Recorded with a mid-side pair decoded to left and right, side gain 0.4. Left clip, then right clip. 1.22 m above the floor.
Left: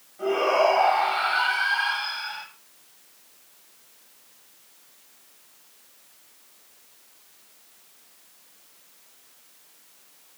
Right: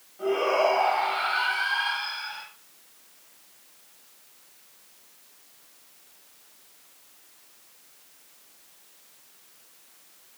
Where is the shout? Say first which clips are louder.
Left 2 dB; 15° left, 8 m.